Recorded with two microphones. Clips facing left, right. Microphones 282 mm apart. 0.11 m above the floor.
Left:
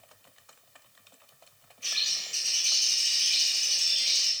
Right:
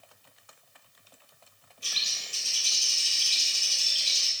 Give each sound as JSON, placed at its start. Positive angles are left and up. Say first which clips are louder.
{"t": 1.8, "sound": "a bird", "louder": "right 1 dB", "side_deg": -40, "distance_m": 1.1}